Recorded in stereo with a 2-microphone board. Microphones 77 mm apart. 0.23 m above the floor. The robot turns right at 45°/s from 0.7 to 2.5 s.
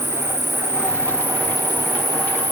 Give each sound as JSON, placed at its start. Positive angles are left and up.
{"t": 0.0, "sound": "an insect", "azimuth_deg": 40, "distance_m": 1.9}